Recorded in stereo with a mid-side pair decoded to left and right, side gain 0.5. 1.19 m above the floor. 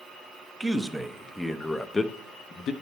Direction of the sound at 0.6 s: 15° right.